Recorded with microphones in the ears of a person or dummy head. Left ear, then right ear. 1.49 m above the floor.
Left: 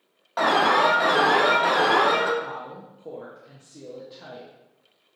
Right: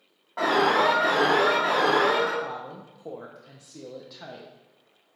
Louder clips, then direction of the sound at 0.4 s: Left 2 dB; 55° left (ahead or behind).